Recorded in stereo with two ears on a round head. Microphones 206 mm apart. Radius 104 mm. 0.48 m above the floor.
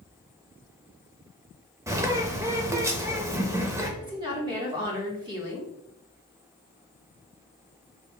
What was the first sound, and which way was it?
A bird, 15° right (ahead or behind).